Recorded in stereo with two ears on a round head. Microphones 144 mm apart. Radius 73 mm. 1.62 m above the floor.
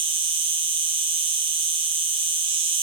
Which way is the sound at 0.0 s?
35° right (ahead or behind).